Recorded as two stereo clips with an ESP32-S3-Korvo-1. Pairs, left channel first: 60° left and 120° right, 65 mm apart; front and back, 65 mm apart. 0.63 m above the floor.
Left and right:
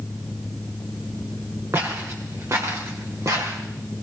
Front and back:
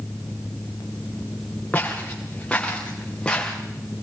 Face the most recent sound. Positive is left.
turn(degrees=-85)